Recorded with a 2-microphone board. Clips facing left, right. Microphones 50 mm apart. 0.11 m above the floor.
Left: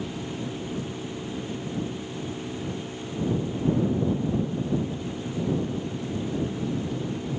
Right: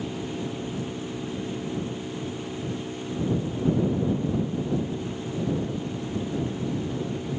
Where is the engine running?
5° right (ahead or behind).